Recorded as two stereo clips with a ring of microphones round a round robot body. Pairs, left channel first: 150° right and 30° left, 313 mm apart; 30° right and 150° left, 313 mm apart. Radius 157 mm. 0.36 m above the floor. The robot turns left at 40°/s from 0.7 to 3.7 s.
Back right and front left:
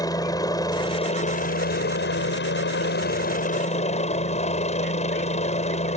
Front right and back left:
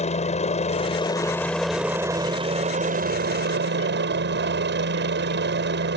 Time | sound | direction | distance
0.0 | a helicopter | 80° right | ?